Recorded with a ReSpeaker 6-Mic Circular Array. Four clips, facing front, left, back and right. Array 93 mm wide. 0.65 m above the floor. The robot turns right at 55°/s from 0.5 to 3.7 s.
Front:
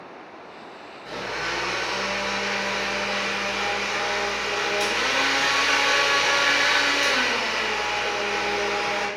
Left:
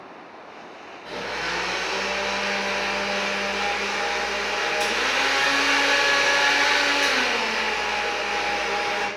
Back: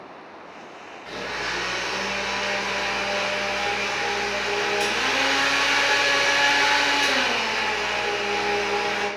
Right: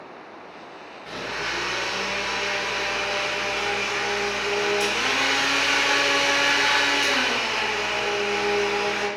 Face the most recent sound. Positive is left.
turn(degrees=-165)